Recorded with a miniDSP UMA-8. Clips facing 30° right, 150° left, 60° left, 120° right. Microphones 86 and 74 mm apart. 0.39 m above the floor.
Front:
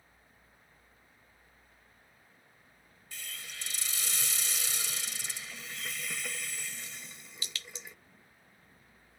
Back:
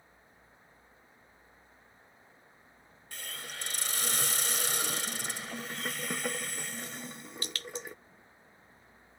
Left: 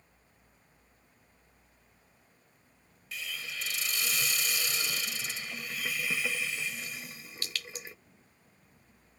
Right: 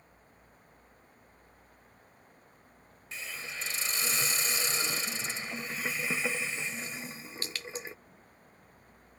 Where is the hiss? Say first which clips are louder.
Back 3 dB, even; 175° right.